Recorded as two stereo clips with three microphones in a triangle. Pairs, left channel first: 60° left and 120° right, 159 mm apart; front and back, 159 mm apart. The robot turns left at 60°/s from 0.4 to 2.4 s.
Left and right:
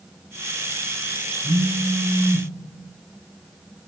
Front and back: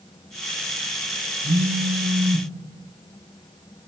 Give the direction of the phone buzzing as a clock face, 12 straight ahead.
4 o'clock.